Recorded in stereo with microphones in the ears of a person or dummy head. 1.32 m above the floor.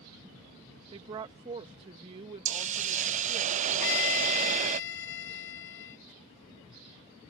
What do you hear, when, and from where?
0.9 s a woman speaking: 30° right (ahead or behind)
2.5 s a hiss: 40° right (ahead or behind)
3.8 s a violin: 75° left (ahead or behind)